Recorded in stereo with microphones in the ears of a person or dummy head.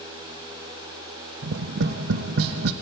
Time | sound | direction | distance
1.4 | tapping | 65° right (ahead or behind) | 0.9 m